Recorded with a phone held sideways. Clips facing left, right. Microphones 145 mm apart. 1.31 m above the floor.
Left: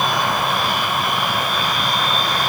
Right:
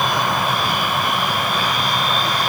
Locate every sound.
Only background noise.